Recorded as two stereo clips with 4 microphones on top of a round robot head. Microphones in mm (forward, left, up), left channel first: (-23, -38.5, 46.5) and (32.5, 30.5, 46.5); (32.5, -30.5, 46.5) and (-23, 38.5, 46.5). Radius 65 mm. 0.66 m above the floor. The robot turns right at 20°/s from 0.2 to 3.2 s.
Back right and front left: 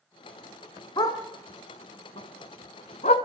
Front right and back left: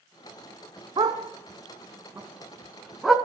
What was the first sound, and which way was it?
A dog barking, straight behind.